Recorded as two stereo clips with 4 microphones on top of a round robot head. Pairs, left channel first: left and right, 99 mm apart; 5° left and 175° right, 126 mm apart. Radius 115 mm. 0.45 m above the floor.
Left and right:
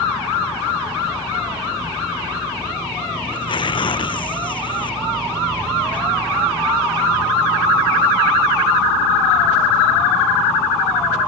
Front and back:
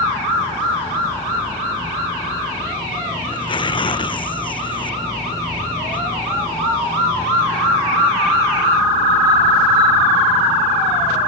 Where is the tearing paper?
55° left.